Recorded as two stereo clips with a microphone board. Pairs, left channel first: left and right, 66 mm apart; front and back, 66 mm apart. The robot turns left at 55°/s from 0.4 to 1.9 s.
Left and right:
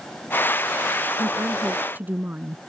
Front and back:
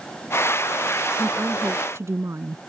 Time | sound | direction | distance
1.2 | a woman speaking | 105° right | ?